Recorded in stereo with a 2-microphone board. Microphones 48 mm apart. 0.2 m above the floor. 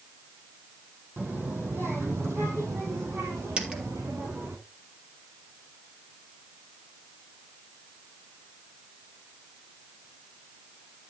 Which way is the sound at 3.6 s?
15° right (ahead or behind).